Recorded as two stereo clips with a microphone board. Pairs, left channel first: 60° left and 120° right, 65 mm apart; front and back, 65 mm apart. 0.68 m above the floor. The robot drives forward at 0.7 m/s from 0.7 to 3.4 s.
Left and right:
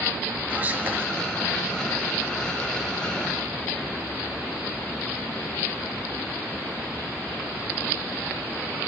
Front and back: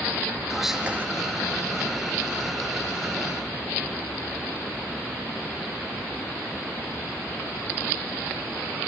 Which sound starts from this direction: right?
Whispering, at 0.5 s.